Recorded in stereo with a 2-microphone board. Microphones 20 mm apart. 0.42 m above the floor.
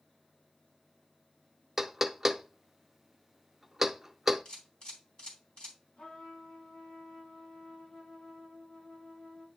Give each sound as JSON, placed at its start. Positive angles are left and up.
{"t": 1.8, "sound": "knocking", "side_deg": -15, "distance_m": 0.6}
{"t": 4.5, "sound": "a camera shutter", "side_deg": 55, "distance_m": 3.5}
{"t": 6.0, "sound": "a trumpet", "side_deg": 50, "distance_m": 2.0}